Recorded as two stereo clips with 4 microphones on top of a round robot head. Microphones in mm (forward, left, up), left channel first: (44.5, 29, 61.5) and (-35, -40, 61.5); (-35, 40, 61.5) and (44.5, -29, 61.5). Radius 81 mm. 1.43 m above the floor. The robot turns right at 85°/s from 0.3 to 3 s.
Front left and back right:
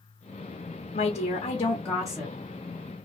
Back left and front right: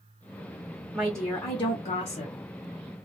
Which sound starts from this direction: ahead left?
A woman speaking, at 0.9 s.